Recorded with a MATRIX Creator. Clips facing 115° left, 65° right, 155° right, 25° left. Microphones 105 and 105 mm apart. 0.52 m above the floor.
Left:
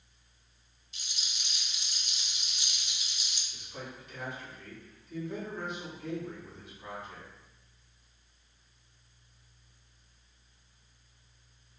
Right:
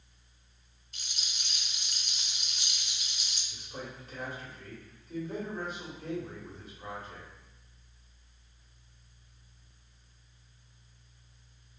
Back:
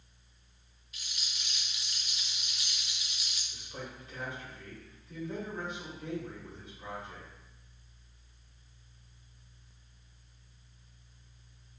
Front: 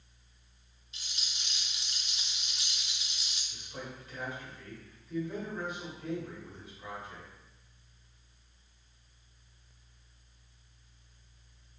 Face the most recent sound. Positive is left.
turn(degrees=-100)